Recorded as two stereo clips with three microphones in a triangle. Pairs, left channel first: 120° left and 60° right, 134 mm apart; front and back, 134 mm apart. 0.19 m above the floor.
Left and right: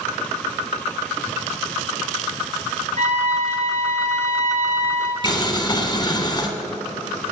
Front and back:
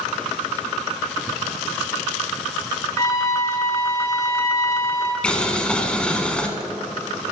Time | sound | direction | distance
3.0 | a trumpet | 60° right | 1.9 m
5.2 | boiling | 80° left | 1.4 m